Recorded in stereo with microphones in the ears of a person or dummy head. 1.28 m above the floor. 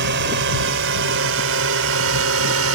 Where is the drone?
60° right (ahead or behind); by 2.8 s 75° right (ahead or behind).